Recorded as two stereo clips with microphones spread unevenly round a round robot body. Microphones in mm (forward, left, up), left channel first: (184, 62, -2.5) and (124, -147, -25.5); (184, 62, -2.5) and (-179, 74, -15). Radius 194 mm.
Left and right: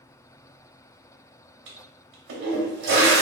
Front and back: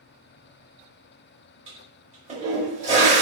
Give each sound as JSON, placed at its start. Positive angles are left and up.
{"t": 1.7, "sound": "a toilet flushing", "azimuth_deg": -110, "distance_m": 0.7}